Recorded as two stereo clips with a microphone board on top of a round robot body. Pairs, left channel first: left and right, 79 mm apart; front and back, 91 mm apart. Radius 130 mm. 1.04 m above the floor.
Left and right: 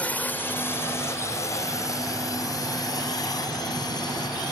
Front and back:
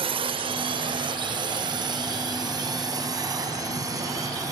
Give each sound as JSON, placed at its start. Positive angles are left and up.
{"t": 0.0, "sound": "a drone", "azimuth_deg": 165}